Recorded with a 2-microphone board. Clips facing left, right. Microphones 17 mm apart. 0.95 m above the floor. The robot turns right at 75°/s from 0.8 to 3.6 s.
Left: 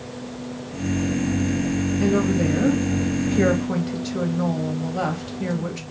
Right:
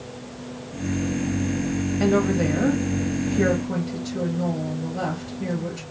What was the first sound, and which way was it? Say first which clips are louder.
A woman speaking: right 1 dB; 60° right.